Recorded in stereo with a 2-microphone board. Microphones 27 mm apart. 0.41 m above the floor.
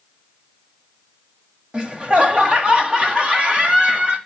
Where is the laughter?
35° right (ahead or behind), 2.0 m.